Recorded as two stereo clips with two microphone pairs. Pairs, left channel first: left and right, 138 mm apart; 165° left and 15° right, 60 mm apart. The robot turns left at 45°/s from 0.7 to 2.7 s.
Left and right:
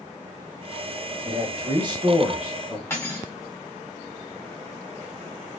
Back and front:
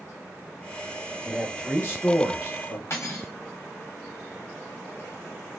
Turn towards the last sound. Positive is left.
turn(degrees=155)